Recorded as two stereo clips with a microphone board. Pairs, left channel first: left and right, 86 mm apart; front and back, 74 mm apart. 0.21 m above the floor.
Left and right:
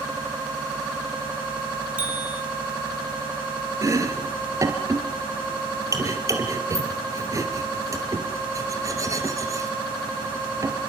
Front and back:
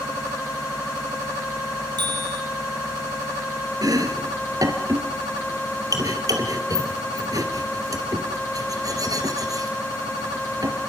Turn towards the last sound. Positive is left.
turn(degrees=-140)